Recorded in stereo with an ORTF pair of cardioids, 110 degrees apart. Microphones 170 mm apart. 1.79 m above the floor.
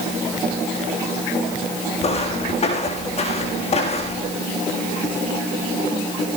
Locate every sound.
2.0 s footsteps: 40° left, 6 m